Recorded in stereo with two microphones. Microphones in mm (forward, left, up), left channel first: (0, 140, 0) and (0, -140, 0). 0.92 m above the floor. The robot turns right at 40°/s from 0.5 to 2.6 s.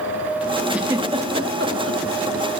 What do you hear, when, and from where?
0.7 s a giggle: centre (ahead or behind), 1.0 m; by 2.0 s 55° right (ahead or behind), 1.0 m